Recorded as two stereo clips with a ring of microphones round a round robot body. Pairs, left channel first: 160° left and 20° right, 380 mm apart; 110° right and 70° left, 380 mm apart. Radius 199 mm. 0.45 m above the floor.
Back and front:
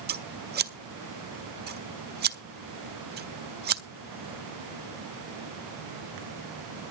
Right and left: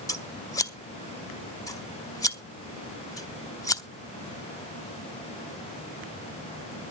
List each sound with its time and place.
0.1 s scissors: 40° right, 0.9 m